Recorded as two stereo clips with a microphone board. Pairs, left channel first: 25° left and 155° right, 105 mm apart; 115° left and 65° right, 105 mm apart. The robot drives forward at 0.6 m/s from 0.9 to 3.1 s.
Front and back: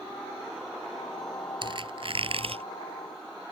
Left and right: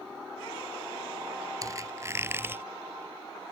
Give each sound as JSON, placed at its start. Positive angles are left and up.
{"t": 1.6, "sound": "a squeak", "azimuth_deg": -120}